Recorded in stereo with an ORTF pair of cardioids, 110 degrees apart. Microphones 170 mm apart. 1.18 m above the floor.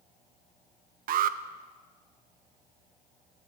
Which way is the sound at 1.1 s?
60° right.